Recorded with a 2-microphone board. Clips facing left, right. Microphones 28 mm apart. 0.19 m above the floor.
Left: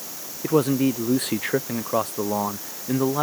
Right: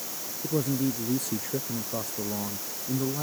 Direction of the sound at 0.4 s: 55° left (ahead or behind).